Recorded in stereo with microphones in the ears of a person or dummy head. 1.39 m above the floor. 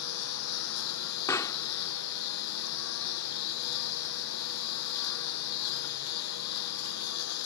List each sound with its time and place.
0.0 s a lawn mower: 85° left
1.3 s a pop: 15° left (ahead or behind)